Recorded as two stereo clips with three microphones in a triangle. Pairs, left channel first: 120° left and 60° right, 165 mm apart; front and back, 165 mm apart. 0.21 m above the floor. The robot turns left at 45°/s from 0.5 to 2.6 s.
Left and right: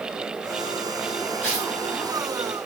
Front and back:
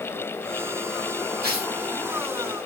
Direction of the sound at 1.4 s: 170° left.